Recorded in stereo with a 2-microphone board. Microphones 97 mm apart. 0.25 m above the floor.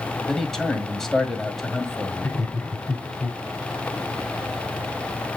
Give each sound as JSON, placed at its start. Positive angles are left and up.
{"t": 0.3, "sound": "a man speaking", "side_deg": 5, "distance_m": 1.5}
{"t": 2.2, "sound": "laughter", "side_deg": 15, "distance_m": 1.8}